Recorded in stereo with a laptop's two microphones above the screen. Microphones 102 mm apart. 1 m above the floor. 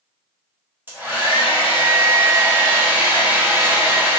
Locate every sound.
0.9 s a hair dryer: 20° right (ahead or behind), 0.6 m